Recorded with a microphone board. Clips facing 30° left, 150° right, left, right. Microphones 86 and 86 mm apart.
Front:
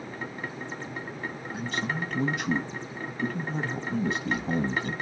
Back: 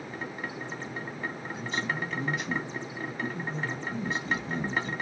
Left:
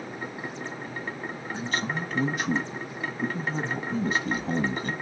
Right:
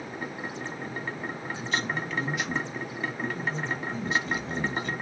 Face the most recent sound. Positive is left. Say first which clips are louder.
# front 2 dB, left 1 dB
turn(degrees=45)